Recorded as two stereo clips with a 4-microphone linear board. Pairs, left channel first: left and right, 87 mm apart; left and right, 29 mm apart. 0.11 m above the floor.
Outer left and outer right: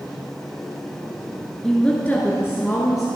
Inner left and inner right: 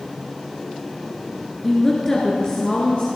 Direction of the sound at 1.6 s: 10° left (ahead or behind).